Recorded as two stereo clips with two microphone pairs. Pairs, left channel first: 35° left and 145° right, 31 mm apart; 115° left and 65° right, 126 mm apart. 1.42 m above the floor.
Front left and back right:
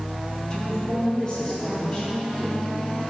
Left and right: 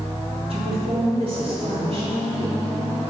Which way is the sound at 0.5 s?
30° right.